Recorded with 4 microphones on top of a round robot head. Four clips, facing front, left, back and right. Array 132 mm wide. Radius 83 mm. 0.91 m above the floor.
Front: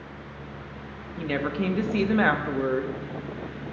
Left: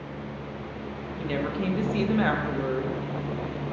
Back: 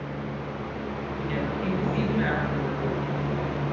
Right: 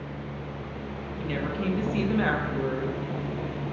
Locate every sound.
1.2 s a woman speaking: 15° left, 1.7 m